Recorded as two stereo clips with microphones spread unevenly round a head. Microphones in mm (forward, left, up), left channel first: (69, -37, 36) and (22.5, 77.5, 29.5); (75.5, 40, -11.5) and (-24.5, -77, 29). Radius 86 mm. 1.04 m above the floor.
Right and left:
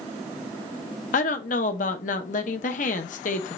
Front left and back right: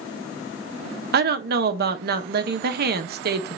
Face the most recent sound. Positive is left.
turn(degrees=-100)